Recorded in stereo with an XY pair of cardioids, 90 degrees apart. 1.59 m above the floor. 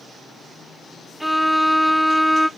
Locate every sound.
1.2 s a violin: 5° right, 0.5 m